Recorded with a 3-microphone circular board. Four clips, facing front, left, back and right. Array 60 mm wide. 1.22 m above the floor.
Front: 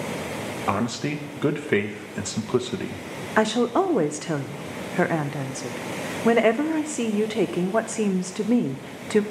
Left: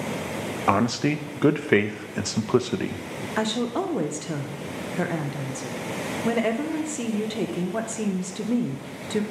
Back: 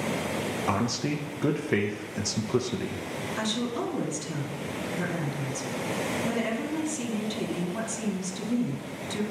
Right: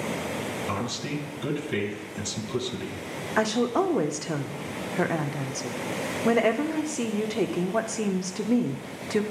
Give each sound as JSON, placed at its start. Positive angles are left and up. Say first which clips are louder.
{"t": 0.7, "sound": "a man speaking", "louder": "left 9 dB, front 4 dB", "azimuth_deg": 70, "distance_m": 0.6}
{"t": 3.4, "sound": "a woman speaking", "louder": "right 2 dB, front 11 dB", "azimuth_deg": -15, "distance_m": 0.6}